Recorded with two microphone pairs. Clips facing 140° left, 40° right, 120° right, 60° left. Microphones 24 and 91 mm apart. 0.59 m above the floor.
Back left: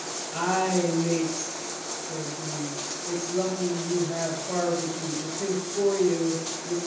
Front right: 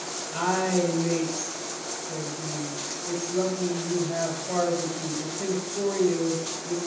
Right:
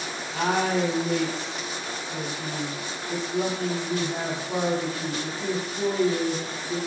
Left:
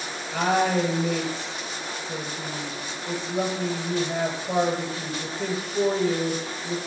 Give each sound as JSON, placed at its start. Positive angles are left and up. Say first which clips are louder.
{"t": 0.3, "sound": "a woman speaking", "louder": "even, left 2 dB", "azimuth_deg": 50, "distance_m": 9.5}